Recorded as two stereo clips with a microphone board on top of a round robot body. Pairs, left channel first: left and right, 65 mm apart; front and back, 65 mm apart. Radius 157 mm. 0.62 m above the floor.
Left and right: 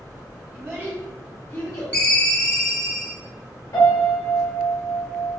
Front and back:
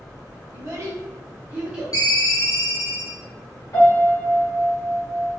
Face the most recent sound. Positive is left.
turn(degrees=45)